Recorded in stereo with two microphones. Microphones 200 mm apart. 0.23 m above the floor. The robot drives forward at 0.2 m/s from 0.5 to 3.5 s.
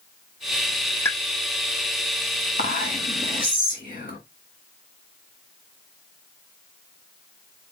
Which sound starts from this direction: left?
Whispering, at 2.6 s.